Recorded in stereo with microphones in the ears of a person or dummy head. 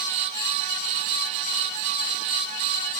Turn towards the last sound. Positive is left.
No sound to turn to.